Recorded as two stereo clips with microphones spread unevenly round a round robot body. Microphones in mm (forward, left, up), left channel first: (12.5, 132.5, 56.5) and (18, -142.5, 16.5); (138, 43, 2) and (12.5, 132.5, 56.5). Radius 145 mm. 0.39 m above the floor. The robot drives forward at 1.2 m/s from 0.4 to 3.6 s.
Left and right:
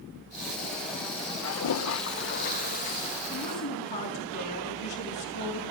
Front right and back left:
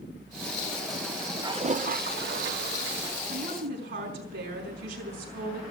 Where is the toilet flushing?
70° left, 1.0 m; by 3.2 s 160° left, 2 m.